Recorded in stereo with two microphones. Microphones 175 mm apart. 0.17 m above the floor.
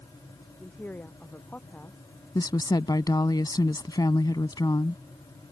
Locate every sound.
0.6 s a woman speaking: 10° left (ahead or behind)
2.4 s a woman speaking: 25° left (ahead or behind)